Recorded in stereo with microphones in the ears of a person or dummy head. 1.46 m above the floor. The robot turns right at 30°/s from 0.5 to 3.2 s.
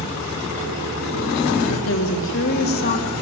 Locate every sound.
1.7 s a woman speaking: 100° left, 3.5 m; by 3.1 s 145° left, 3.5 m